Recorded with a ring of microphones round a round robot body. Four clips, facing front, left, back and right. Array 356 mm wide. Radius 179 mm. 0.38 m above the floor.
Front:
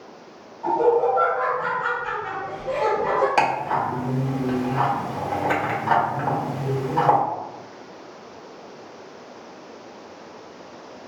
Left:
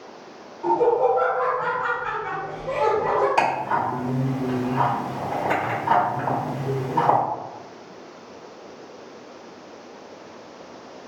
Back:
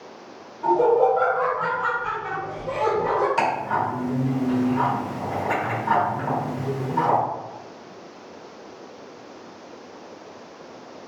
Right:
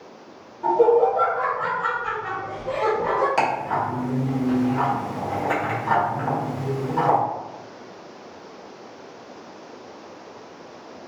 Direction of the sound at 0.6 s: 150° right.